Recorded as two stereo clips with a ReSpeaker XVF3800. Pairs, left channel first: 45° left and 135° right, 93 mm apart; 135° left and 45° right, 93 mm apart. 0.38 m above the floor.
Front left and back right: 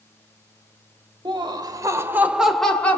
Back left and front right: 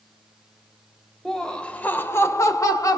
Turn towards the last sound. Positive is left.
turn(degrees=105)